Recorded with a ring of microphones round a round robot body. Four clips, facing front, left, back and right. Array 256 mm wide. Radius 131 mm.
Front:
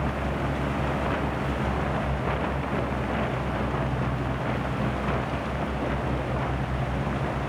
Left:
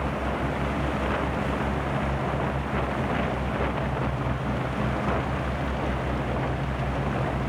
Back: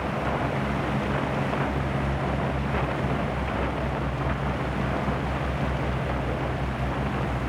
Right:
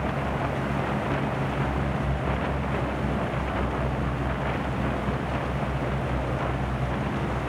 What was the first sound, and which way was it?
Only background noise.